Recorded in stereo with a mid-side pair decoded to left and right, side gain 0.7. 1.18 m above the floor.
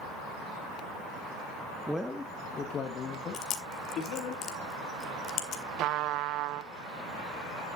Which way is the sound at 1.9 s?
5° right.